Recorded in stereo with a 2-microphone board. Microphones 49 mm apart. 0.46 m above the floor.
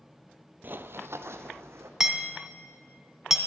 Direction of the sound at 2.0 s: 10° right (ahead or behind).